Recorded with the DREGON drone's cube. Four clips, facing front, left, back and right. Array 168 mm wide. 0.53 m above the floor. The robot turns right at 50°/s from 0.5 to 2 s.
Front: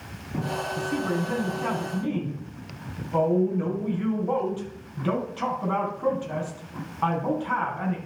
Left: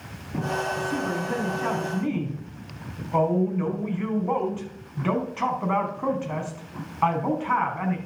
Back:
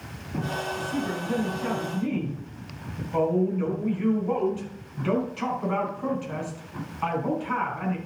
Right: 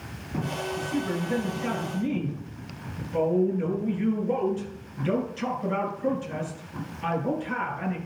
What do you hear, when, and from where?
0.8 s a woman speaking: 10° left, 4 m; by 8.0 s 75° left, 4 m